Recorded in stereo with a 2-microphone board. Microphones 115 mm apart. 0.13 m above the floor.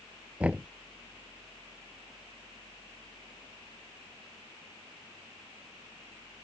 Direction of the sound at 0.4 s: 10° right (ahead or behind).